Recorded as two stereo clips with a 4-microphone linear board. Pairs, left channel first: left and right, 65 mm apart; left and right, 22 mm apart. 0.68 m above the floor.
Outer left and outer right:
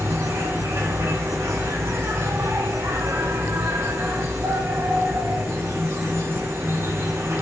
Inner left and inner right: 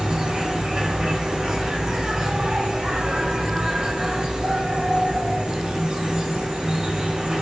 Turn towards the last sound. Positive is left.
turn(degrees=-50)  # may be behind; listen again after turning